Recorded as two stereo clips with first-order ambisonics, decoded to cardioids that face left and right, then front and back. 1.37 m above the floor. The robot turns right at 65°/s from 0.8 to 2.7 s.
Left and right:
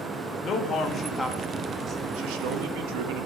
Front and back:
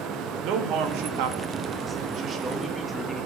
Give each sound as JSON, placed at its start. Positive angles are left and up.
{"t": 0.4, "sound": "a man speaking", "azimuth_deg": 145, "distance_m": 1.8}